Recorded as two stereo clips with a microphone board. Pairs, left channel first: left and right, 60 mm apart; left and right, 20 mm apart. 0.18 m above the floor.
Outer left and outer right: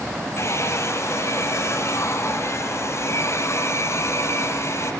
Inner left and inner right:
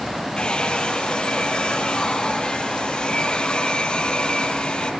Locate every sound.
0.4 s a hair dryer: 50° left (ahead or behind), 5 m